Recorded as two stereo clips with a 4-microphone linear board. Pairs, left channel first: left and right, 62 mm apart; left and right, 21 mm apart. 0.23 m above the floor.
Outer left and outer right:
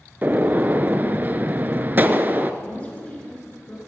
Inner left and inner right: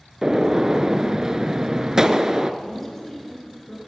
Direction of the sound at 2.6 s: 20° left (ahead or behind).